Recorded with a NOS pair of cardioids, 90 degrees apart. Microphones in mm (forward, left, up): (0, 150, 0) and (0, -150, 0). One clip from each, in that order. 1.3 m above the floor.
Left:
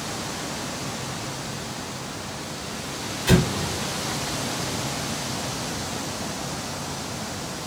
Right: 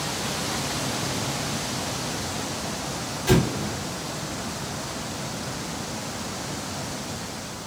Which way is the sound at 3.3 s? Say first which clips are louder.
Left 1 dB; 10° left.